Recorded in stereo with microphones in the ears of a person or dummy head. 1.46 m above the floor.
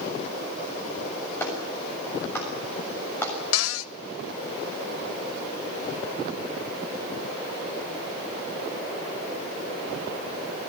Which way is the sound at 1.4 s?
15° left (ahead or behind).